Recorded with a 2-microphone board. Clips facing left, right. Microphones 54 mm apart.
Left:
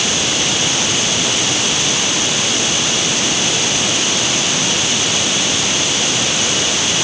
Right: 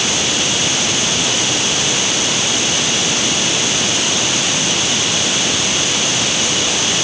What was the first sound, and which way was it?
Only background noise.